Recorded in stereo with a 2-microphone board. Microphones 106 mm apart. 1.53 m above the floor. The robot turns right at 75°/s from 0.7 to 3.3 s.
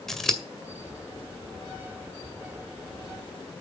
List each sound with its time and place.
0.1 s scissors: 5° left (ahead or behind), 1.9 m